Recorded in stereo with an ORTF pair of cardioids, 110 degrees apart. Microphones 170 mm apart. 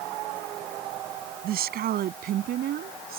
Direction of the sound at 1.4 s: 65° right.